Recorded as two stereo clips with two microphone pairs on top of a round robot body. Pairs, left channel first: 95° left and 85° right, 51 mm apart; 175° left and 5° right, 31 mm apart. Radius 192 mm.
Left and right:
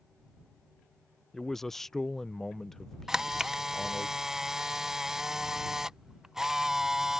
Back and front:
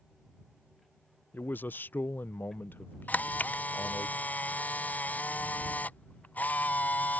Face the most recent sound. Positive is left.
turn(degrees=-160)